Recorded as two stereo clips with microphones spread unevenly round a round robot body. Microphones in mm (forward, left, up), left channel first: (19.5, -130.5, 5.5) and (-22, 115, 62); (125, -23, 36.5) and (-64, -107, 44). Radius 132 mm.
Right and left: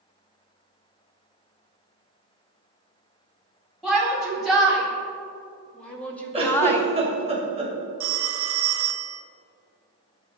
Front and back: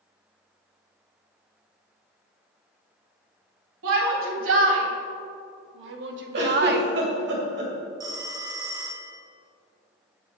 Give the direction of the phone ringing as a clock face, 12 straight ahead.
8 o'clock.